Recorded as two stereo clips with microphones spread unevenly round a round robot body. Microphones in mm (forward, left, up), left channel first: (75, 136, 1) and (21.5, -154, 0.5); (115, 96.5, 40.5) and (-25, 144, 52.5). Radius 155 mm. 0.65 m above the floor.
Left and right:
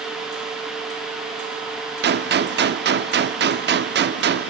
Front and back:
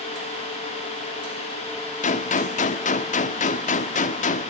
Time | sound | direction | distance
2.0 | a gunshot | 50° right | 0.9 m